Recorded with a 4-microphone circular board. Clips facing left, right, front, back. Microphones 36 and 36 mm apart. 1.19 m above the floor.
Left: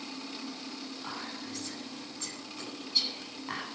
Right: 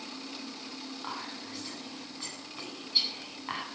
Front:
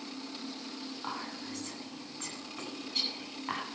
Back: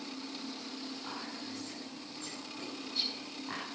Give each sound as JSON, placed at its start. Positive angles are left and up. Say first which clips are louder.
{"t": 1.0, "sound": "whispering", "louder": "right 1 dB, front 3 dB", "azimuth_deg": -20, "distance_m": 9.0}